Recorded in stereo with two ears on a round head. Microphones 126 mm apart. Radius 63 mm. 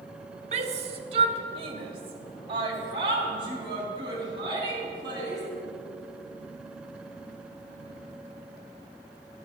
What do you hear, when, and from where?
0.5 s a shout: 50° right (ahead or behind), 1.7 m; by 5.4 s 30° right (ahead or behind), 7 m